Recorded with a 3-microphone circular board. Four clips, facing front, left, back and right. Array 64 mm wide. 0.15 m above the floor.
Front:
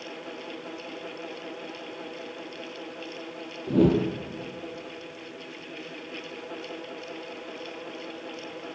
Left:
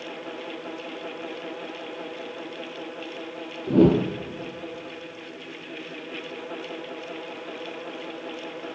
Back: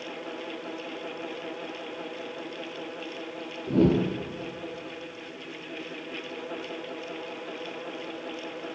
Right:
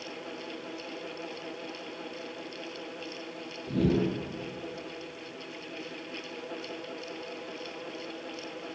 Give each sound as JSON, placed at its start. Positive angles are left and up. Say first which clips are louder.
{"t": 3.7, "sound": "a whoosh", "louder": "left 9 dB, front 1 dB", "azimuth_deg": 80, "distance_m": 2.0}